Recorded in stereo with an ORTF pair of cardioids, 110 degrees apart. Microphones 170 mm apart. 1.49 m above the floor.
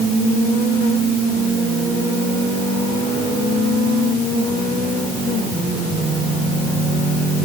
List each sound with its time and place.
Only background noise.